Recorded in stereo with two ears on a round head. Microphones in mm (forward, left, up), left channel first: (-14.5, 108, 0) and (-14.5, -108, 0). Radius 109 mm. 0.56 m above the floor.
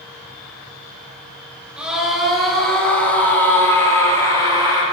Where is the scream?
5° right (ahead or behind), 8.5 m; by 4.8 s 20° left (ahead or behind), 10.5 m.